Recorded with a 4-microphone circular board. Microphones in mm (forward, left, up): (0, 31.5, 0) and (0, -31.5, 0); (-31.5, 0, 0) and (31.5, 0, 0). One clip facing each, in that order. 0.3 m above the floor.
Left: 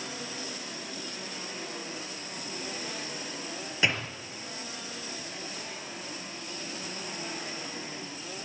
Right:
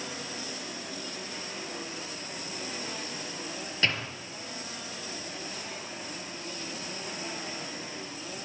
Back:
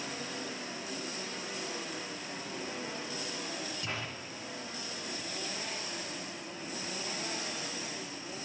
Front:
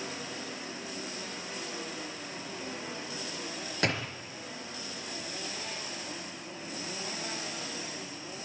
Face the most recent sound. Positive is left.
turn(degrees=15)